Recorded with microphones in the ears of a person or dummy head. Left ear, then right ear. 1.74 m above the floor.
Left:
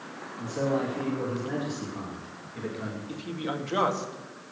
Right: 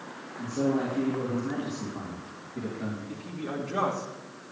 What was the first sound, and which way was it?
A man speaking, 40° left (ahead or behind).